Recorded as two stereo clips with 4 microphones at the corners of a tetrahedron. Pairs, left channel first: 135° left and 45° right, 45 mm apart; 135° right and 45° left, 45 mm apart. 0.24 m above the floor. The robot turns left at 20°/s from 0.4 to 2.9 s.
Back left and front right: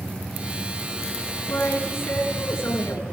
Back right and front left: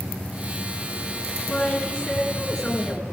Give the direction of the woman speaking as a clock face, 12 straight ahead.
6 o'clock.